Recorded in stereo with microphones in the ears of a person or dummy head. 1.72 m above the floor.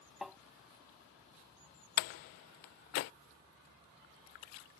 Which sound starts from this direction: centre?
Tapping, at 0.2 s.